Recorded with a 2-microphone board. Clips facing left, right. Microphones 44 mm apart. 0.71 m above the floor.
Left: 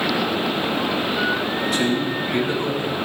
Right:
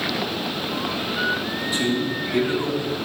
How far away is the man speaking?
About 4.5 m.